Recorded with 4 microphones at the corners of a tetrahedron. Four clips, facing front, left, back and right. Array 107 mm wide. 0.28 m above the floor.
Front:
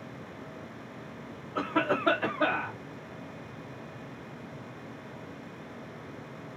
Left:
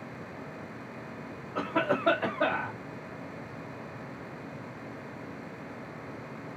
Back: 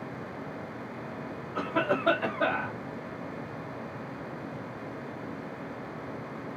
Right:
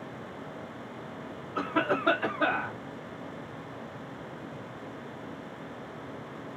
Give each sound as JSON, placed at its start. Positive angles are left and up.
{"t": 1.6, "sound": "a cough", "azimuth_deg": 100, "distance_m": 1.3}